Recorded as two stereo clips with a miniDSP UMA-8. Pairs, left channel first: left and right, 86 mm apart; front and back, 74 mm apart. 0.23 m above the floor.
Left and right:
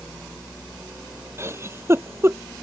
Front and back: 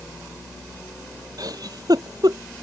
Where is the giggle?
150° right.